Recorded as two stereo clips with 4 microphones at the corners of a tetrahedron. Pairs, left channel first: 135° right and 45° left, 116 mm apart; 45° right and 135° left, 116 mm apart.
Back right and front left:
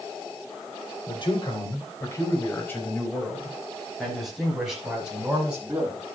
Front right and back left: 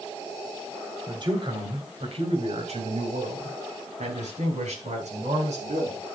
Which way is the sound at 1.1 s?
175° right.